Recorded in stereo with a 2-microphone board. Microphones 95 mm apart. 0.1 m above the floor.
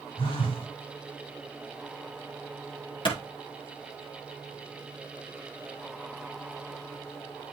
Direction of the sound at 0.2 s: 75° left (ahead or behind).